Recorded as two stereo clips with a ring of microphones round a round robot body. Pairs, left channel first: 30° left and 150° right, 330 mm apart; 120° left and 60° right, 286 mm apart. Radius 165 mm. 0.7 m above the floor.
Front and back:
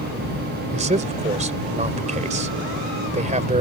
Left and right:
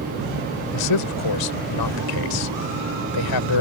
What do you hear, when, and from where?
0.7 s a man speaking: 140° left